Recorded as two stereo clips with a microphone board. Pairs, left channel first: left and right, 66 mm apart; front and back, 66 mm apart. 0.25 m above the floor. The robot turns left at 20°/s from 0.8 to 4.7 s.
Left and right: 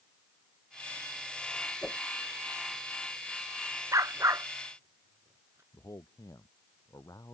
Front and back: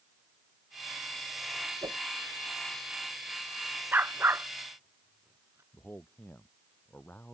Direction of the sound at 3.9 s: 120° right.